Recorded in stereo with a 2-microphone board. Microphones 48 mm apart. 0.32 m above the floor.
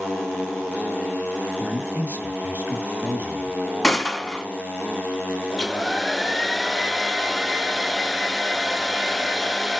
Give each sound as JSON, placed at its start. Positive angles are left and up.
{"t": 1.6, "sound": "a man speaking", "side_deg": -45, "distance_m": 1.6}
{"t": 3.8, "sound": "a gunshot", "side_deg": 10, "distance_m": 0.9}
{"t": 5.5, "sound": "a hair dryer", "side_deg": 0, "distance_m": 0.6}